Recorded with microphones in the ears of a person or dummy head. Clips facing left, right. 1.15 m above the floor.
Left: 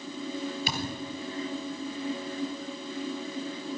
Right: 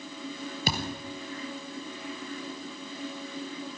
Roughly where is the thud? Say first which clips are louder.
Right 1 dB; right.